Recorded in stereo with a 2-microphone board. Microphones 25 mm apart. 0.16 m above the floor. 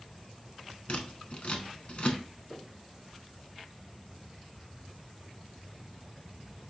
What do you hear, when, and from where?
0.9 s scissors: 45° left (ahead or behind), 0.6 m
2.5 s knocking: 30° left (ahead or behind), 1.1 m